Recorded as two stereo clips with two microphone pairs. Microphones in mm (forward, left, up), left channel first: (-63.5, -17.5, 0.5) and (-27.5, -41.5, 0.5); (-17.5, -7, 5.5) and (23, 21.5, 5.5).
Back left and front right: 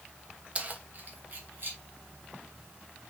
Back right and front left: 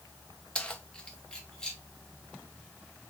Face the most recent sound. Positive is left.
turn(degrees=-70)